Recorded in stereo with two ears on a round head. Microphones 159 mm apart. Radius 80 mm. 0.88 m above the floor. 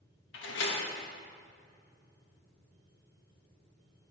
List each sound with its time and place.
0.3 s a door slam: 75° left (ahead or behind), 1.2 m